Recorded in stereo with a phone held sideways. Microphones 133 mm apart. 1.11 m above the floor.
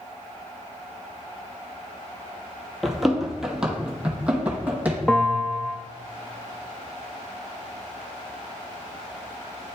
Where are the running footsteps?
Centre (ahead or behind), 1.1 m; by 5.0 s 10° right (ahead or behind), 1.8 m.